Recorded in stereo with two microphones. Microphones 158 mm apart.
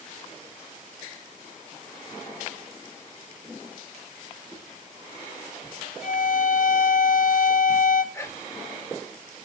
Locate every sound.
4.5 s a whoosh: 5° right (ahead or behind), 6.5 m
6.0 s a violin: 60° left (ahead or behind), 1.2 m
8.1 s whispering: 20° left (ahead or behind), 2.5 m